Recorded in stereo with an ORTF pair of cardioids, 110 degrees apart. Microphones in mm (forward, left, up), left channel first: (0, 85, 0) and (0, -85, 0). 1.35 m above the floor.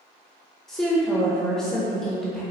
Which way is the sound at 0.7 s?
Straight ahead.